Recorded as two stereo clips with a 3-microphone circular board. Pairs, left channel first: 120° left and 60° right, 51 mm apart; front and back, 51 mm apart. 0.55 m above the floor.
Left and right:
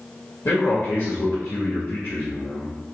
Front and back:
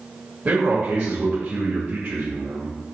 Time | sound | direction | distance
0.5 | a man speaking | 125° left | 2 m